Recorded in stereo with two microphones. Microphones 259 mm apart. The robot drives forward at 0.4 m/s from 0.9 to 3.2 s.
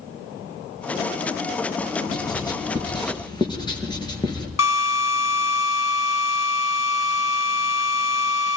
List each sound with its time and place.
2.1 s writing: 15° left (ahead or behind), 5.5 m
4.6 s a drill: 75° left (ahead or behind), 4.5 m